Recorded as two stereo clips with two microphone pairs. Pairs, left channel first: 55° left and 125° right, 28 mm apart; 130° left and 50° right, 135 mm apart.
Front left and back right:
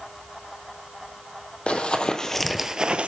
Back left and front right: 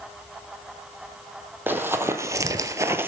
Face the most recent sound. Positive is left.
turn(degrees=-120)